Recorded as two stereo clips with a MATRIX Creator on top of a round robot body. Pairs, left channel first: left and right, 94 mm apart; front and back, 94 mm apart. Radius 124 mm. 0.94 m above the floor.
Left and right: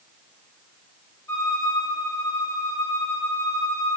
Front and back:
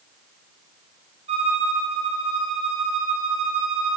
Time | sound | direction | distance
1.3 | a violin | 155° left | 2.5 m